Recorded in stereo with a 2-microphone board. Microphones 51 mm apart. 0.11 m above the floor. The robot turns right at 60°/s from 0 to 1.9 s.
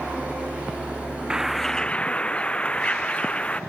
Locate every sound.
1.3 s a bird: 15° right; by 3.6 s 25° left